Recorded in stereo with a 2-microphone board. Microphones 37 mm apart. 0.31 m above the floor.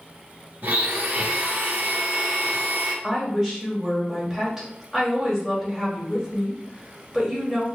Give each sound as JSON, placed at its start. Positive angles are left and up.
{"t": 0.6, "sound": "a blender", "side_deg": -70, "distance_m": 1.2}
{"t": 3.0, "sound": "a woman speaking", "side_deg": -5, "distance_m": 1.6}